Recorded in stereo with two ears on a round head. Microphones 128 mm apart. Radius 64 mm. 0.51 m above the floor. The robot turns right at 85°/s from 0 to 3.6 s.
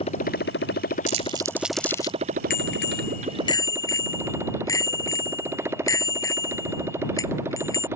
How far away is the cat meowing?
No cat meowing in this recording.